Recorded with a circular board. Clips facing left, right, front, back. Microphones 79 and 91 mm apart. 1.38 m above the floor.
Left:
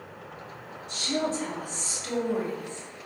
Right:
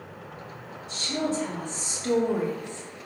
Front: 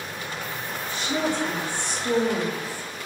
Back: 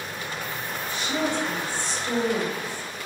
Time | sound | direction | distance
0.9 | a woman speaking | 50° left | 1.6 m